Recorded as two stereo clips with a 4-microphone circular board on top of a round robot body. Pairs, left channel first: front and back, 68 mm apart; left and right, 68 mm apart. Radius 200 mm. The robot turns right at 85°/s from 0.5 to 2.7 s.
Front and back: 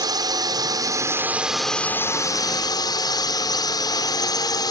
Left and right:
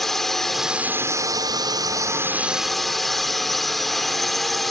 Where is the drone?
175° left; by 4.7 s straight ahead.